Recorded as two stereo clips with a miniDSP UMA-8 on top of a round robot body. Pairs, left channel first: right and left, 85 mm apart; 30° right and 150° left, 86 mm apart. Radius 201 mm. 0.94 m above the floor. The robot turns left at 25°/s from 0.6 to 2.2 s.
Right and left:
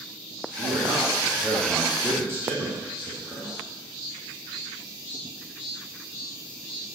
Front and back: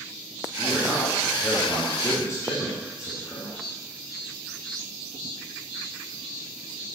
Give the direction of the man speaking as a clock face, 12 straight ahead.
10 o'clock.